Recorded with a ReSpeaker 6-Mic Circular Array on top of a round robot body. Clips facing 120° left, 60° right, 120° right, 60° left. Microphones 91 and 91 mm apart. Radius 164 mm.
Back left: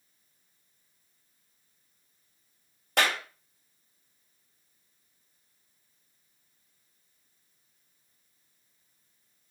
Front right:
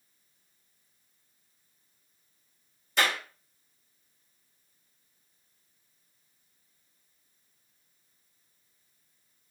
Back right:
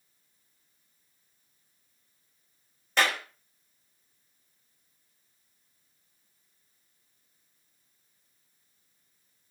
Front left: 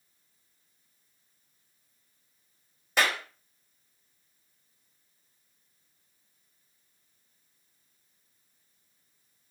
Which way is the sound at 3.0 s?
140° left.